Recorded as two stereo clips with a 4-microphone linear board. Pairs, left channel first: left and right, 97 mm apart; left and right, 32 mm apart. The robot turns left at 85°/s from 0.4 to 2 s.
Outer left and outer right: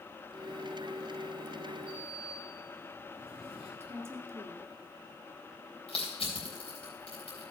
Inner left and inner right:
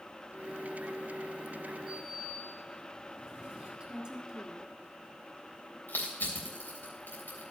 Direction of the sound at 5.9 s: 85° left.